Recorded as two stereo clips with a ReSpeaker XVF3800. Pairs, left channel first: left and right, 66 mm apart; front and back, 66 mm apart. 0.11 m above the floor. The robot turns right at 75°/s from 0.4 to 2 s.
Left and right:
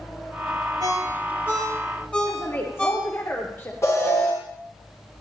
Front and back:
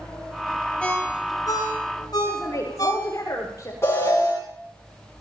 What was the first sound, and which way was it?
A ringtone, 70° right.